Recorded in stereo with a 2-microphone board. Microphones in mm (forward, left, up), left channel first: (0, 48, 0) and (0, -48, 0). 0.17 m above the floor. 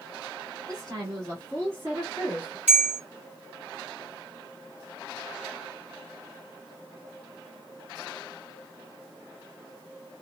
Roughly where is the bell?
Centre.